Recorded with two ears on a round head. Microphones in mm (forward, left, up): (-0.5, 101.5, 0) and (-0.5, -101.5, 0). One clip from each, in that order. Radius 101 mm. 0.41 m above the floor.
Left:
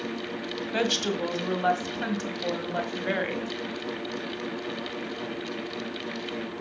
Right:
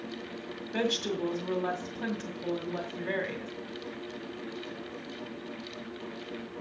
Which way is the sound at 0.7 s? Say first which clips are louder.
Left 4 dB; 35° left (ahead or behind).